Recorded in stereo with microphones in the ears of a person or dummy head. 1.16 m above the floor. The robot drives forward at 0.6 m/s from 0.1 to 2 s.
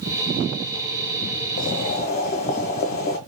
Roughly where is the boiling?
Left.